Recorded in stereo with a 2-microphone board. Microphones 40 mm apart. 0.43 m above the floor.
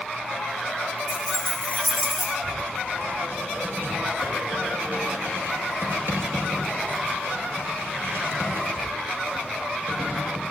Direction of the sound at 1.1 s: 60° right (ahead or behind).